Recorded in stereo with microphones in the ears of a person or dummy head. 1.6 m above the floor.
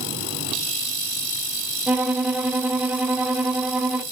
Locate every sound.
1.9 s a violin: 5° right (ahead or behind), 0.7 m